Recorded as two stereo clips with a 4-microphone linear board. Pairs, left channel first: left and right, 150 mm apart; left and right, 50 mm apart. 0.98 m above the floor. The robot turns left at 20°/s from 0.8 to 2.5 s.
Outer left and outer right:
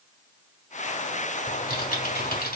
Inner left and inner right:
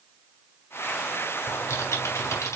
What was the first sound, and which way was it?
Typing on a keyboard, 65° left (ahead or behind).